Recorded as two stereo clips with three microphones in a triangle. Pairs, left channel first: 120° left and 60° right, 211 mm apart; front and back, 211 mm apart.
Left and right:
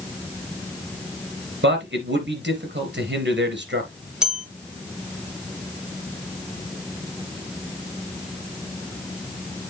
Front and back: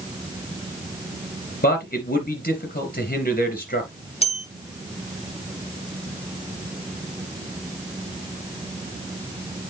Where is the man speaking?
40° right, 2.5 m.